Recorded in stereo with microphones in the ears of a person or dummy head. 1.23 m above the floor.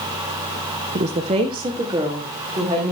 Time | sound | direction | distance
0.9 | a woman speaking | 40° right (ahead or behind) | 0.7 m